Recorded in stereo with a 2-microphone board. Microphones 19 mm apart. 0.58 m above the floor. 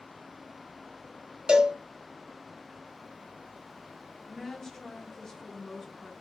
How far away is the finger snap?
No finger snap in this recording.